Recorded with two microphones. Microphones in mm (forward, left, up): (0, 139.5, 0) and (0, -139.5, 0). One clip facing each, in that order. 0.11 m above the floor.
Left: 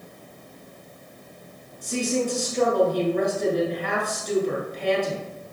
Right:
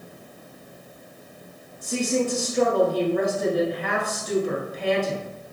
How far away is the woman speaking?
About 1.1 m.